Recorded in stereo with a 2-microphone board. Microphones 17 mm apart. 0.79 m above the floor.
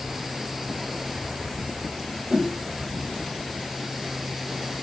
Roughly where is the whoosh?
Right.